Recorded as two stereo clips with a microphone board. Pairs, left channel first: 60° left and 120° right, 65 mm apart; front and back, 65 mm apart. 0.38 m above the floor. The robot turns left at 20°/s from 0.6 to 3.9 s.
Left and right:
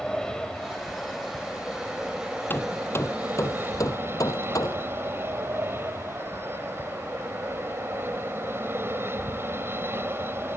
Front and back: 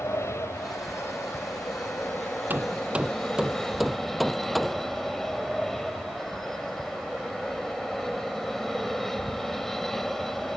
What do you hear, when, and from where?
0.0 s an aircraft: 20° right; by 10.6 s 85° right
2.5 s hammering: 120° left; by 4.9 s 90° left